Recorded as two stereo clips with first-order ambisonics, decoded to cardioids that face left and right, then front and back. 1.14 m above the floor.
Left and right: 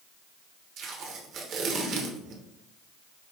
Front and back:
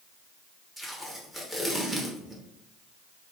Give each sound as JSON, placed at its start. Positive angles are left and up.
{"t": 0.8, "sound": "tape being pulled", "azimuth_deg": -80, "distance_m": 0.9}